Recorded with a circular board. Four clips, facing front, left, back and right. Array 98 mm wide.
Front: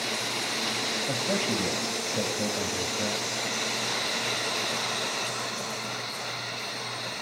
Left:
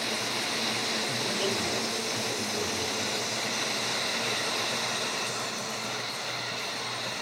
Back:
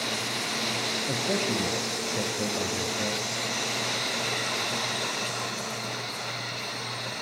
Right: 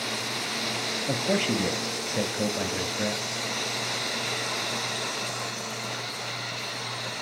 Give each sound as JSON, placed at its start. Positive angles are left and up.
{"t": 1.1, "sound": "a man speaking", "azimuth_deg": -90, "distance_m": 3.0}